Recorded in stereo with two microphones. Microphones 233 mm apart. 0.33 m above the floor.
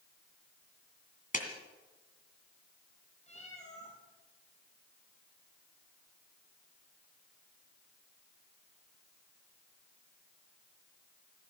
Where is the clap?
35° left (ahead or behind), 2 m.